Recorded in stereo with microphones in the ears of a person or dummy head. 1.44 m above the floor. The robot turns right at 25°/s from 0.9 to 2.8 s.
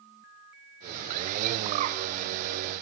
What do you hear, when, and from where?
1.6 s a bird: 40° right (ahead or behind), 0.6 m; by 2.0 s 50° right (ahead or behind), 0.6 m